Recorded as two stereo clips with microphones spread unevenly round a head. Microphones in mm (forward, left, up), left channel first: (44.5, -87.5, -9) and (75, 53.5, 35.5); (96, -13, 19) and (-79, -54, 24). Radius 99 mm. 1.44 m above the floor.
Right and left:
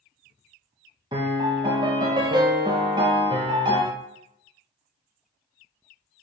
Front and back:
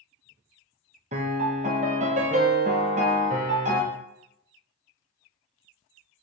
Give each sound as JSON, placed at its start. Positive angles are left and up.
{"t": 1.1, "sound": "a piano", "azimuth_deg": 140, "distance_m": 0.9}